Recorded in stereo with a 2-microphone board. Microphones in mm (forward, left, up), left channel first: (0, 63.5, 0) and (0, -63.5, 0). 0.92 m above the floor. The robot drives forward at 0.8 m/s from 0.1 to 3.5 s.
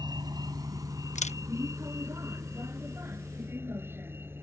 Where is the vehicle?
30° right (ahead or behind); by 4.4 s 15° right (ahead or behind).